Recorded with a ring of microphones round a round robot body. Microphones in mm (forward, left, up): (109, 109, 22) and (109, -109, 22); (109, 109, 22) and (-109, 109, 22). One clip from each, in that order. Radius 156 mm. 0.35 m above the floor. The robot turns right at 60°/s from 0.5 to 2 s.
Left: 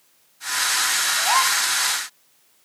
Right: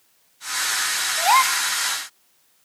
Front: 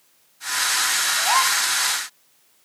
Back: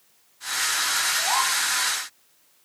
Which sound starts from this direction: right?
A gasp, at 1.2 s.